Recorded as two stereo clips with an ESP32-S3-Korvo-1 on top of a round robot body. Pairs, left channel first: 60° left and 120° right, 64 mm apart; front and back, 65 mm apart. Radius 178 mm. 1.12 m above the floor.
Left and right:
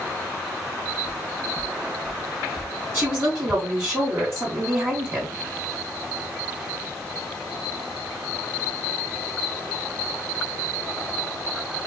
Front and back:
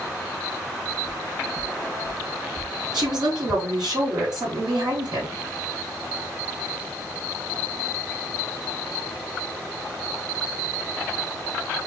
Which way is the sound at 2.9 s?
Straight behind.